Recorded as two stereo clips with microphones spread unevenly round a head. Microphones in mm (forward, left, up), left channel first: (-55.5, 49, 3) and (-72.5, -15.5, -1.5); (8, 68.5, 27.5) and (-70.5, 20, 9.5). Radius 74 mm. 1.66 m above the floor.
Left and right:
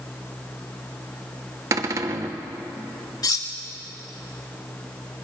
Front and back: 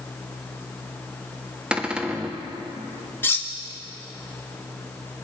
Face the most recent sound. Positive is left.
turn(degrees=90)